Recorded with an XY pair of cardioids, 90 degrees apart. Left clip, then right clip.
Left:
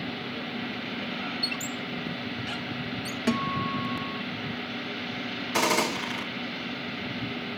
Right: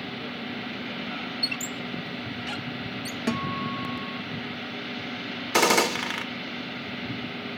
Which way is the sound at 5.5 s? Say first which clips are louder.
Right 4 dB; 60° right.